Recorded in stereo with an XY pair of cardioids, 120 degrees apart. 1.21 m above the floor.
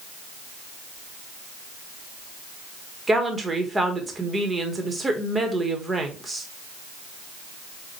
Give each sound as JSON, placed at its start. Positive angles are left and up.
{"t": 3.1, "sound": "a woman speaking", "azimuth_deg": -20, "distance_m": 1.3}